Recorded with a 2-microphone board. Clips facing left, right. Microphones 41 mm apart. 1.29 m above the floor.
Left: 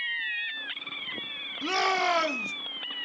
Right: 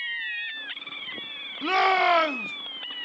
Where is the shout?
20° right (ahead or behind), 0.6 m.